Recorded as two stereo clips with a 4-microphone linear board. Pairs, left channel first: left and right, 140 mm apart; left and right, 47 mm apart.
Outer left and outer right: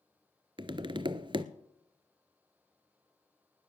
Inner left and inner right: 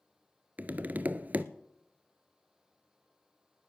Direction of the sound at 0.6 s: 35° right (ahead or behind).